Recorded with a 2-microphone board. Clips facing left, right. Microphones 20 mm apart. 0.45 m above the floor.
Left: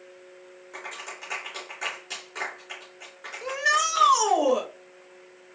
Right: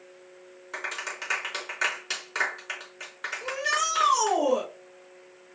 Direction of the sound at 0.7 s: 55° right (ahead or behind).